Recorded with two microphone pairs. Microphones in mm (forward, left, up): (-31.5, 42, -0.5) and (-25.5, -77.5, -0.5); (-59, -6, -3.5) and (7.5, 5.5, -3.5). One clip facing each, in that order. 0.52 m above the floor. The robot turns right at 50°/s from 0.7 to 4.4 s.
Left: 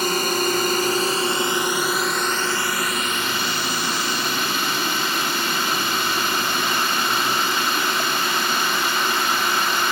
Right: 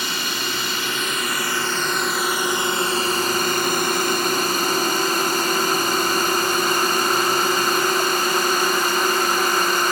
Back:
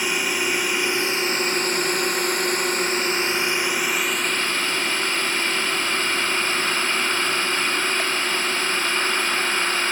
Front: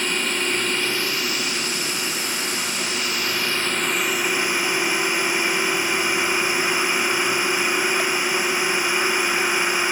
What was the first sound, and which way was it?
A drone, 115° left.